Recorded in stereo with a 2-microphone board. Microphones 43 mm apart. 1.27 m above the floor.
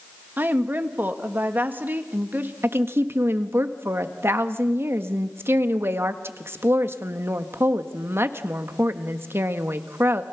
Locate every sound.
0.4 s a woman speaking: 45° right (ahead or behind), 1.8 m
2.6 s a woman speaking: 65° right (ahead or behind), 1.5 m